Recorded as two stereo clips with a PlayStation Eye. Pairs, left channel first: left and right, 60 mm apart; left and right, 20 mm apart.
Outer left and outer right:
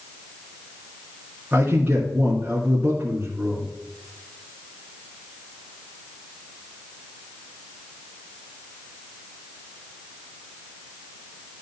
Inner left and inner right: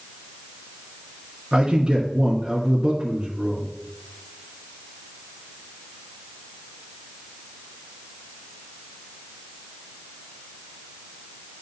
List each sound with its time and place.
1.5 s a man speaking: 35° right (ahead or behind), 2.5 m